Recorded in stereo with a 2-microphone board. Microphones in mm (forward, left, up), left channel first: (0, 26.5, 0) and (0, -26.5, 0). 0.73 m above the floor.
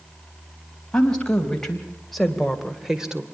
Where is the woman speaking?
15° left (ahead or behind), 4 m; by 3.2 s 15° right (ahead or behind), 2 m.